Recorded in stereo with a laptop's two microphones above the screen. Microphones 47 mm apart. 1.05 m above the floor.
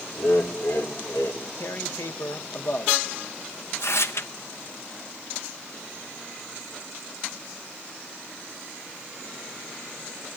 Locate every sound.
0.2 s laughter: 60° left (ahead or behind), 3.5 m; by 1.4 s 65° left (ahead or behind), 4.5 m
1.6 s tearing paper: 65° left (ahead or behind), 1.0 m